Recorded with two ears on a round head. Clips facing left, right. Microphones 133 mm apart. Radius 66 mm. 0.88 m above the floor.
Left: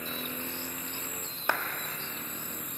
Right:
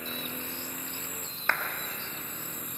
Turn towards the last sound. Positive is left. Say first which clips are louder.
# left 1 dB
turn(degrees=15)  # may be behind; listen again after turning